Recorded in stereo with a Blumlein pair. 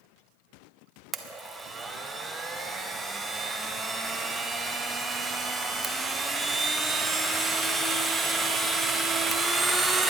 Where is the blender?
10° right, 0.7 m.